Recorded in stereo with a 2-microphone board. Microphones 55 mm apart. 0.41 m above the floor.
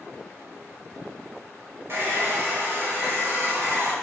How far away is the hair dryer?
About 0.8 m.